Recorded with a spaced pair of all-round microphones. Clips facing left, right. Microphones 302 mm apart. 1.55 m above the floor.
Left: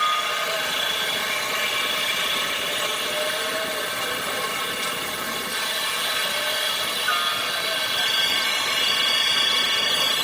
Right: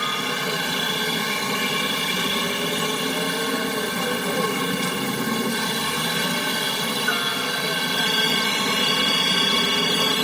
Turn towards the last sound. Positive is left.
turn(degrees=-60)  # may be behind; listen again after turning